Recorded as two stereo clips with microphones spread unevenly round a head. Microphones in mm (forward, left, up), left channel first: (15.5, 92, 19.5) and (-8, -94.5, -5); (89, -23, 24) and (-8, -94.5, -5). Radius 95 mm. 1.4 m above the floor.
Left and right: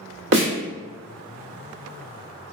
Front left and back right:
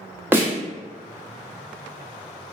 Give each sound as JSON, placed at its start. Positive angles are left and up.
{"t": 0.3, "sound": "a snare drum", "azimuth_deg": -70, "distance_m": 0.9}